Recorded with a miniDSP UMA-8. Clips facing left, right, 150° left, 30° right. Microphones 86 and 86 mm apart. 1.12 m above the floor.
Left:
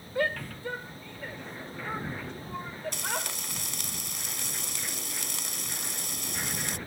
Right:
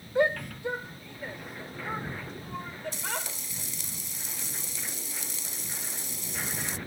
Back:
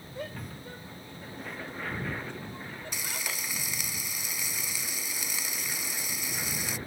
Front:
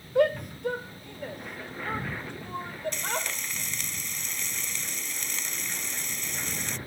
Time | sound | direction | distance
0.1 | a shout | 20° right | ?
2.9 | frying | 65° left | ?